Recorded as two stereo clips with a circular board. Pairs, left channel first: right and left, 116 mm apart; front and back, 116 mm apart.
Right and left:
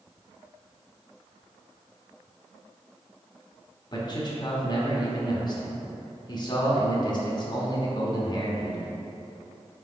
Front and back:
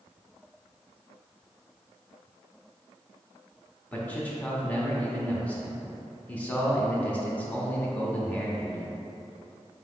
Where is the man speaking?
70° right, 0.7 m.